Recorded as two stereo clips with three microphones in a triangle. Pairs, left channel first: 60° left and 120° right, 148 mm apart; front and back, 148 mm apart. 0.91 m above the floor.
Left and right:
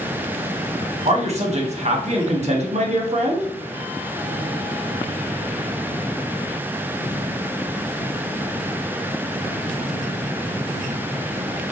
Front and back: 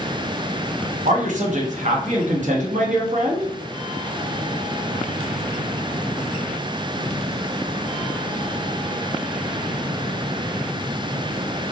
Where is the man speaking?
155° right, 0.8 m.